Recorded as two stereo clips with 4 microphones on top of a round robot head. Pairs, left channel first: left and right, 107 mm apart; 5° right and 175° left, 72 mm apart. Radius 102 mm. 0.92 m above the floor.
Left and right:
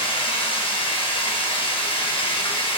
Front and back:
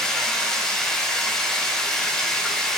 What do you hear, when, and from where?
0.0 s running water: 75° left, 0.9 m